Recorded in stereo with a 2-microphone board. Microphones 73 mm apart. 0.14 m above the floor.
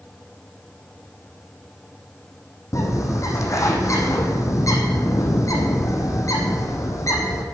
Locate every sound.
2.7 s a bird: 50° left (ahead or behind), 1.9 m